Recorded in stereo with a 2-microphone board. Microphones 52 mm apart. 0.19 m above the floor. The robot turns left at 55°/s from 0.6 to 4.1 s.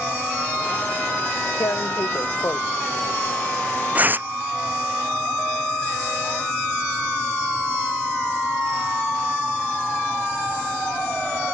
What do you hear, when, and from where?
1.6 s tearing paper: 80° left; by 4.3 s 35° right (ahead or behind)